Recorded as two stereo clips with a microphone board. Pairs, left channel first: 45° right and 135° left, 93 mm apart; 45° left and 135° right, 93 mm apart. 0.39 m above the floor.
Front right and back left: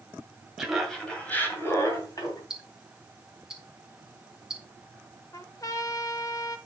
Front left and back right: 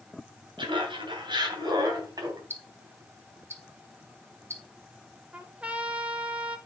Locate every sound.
0.6 s laughter: 140° right, 2.5 m; by 2.4 s 90° right, 3 m
2.5 s ticking: 150° right, 1.5 m
5.3 s a trumpet: 65° right, 1.1 m